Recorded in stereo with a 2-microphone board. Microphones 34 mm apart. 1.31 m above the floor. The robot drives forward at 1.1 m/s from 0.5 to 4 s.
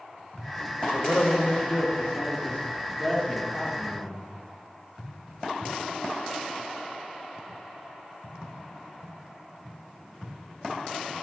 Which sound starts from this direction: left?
A man speaking, at 0.9 s.